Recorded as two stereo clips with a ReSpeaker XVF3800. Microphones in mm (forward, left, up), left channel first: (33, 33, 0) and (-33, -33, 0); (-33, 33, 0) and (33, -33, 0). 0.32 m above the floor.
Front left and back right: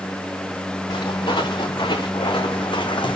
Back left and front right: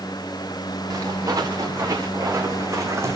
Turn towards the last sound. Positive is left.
turn(degrees=15)